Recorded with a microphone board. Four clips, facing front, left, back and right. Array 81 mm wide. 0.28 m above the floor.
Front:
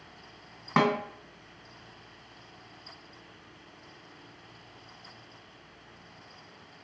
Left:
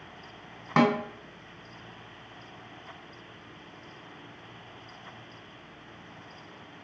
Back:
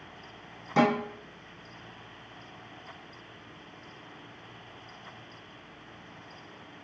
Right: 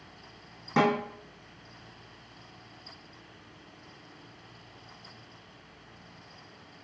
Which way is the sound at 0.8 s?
40° left.